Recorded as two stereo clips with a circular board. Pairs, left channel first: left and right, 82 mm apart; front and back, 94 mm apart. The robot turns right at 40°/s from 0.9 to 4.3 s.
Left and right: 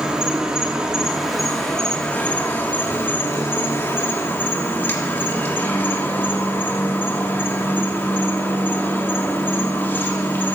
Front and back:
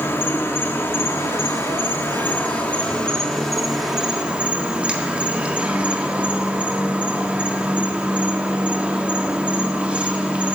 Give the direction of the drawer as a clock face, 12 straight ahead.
No drawer in this recording.